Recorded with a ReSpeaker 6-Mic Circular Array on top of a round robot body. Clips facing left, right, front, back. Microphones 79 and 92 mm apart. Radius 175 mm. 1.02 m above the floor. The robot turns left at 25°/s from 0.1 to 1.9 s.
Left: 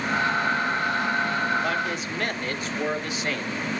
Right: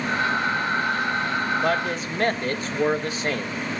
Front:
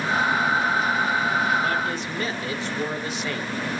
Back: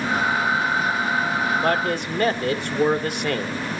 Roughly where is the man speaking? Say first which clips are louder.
Right 3 dB, back 4 dB; behind right.